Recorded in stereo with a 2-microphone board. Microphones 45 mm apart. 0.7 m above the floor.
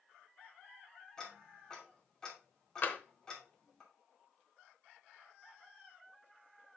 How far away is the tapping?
About 0.9 m.